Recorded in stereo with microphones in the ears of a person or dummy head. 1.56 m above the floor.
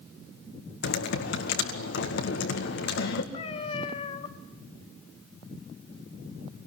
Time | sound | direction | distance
0.8 | typing on a keyboard | 60° left (ahead or behind) | 1.9 m
3.3 | a cat meowing | 35° left (ahead or behind) | 1.6 m